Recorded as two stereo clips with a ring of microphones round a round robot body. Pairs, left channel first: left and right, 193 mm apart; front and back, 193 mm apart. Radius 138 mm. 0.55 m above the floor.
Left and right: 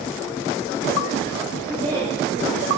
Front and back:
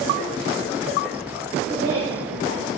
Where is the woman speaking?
160° right, 2.5 m; by 2.7 s straight behind, 2.0 m.